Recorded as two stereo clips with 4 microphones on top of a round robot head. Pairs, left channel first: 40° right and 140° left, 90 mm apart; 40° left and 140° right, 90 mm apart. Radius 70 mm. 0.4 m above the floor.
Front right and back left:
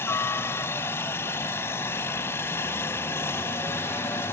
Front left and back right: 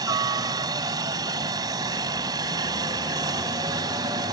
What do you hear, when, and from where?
0.0 s a helicopter: 100° right